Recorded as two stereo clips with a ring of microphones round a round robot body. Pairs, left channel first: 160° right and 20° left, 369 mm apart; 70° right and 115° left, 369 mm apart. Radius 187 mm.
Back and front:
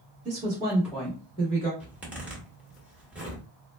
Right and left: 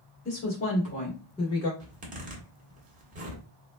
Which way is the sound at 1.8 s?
100° left.